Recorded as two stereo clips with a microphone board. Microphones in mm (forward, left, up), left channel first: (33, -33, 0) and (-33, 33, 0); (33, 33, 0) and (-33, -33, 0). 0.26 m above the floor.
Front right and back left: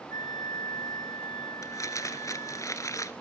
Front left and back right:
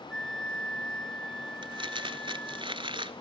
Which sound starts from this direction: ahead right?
A flute, at 0.1 s.